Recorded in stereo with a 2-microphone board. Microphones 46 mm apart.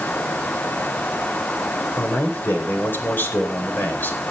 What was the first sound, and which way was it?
A man speaking, 45° left (ahead or behind).